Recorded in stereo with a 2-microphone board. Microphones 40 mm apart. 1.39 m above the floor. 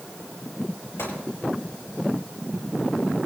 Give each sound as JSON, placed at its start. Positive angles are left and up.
{"t": 1.0, "sound": "a gunshot", "side_deg": 75, "distance_m": 7.5}